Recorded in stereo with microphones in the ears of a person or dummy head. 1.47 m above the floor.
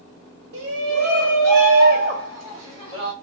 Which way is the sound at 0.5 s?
70° right (ahead or behind).